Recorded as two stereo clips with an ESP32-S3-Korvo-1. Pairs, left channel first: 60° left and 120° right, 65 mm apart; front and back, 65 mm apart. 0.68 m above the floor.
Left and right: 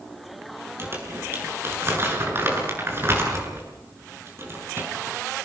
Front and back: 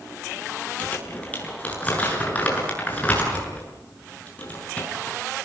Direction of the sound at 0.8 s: 65° right.